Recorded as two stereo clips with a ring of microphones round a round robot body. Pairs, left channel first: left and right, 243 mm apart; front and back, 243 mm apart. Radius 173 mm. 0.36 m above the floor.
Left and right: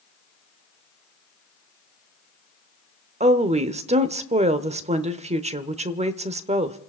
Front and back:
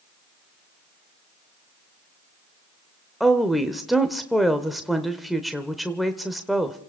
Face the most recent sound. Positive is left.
turn(degrees=-90)